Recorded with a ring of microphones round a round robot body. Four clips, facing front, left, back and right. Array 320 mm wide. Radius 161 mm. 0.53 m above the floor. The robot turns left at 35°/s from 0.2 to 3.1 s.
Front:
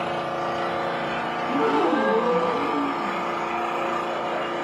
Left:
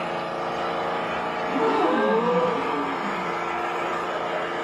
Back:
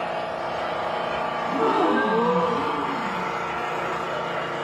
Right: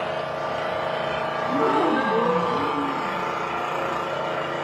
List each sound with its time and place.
0.0 s an engine running: 25° right, 1.2 m; by 4.7 s 125° right, 1.2 m
1.5 s a gasp: 120° right, 1.0 m; by 3.3 s 175° right, 1.0 m